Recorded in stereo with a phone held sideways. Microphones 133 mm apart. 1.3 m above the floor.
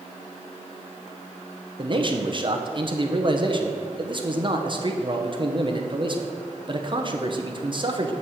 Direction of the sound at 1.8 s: 40° right (ahead or behind).